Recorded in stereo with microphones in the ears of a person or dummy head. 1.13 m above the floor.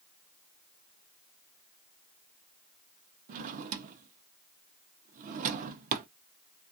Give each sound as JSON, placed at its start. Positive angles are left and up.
{"t": 3.3, "sound": "a drawer", "side_deg": -50, "distance_m": 0.5}